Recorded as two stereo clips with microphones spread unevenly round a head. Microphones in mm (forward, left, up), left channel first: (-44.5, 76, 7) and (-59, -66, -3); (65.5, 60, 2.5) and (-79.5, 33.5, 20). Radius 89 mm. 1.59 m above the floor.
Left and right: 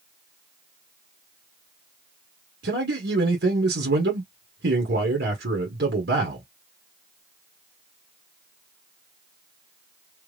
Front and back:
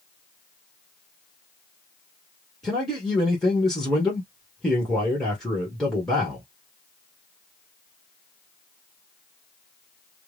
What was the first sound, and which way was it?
A man speaking, 75° right.